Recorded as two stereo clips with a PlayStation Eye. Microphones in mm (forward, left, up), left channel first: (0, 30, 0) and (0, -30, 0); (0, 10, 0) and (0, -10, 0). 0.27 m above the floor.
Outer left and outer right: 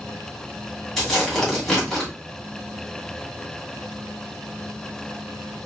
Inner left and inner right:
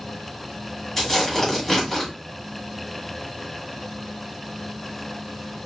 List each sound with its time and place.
1.0 s tearing paper: 5° left (ahead or behind), 2.5 m